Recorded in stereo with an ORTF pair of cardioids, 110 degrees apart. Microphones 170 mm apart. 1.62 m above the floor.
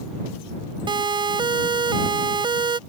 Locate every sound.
0.9 s a siren: 30° right